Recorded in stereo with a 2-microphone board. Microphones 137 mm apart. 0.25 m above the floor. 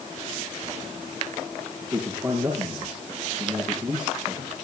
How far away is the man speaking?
About 6.5 m.